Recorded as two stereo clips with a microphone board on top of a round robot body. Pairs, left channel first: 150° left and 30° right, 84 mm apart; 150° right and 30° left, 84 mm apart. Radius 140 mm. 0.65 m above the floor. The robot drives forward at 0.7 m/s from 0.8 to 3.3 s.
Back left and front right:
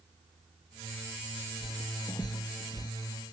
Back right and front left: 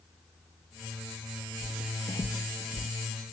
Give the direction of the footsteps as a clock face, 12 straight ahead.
4 o'clock.